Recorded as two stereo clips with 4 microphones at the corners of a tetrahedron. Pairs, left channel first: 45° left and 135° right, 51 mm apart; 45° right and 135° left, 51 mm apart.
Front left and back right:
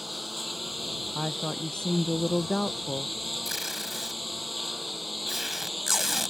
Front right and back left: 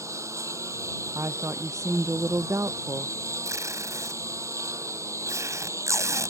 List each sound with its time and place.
0.0 s a lawn mower: 140° left
1.1 s a woman speaking: 120° left
3.5 s tape being pulled: 140° left